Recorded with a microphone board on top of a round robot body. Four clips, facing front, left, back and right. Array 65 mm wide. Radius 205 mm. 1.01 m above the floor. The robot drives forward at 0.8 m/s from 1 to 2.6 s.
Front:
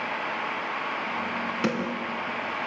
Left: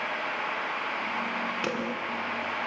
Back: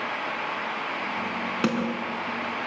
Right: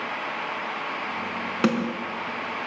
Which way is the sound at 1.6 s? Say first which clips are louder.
Right 7 dB, back 3 dB; 95° right.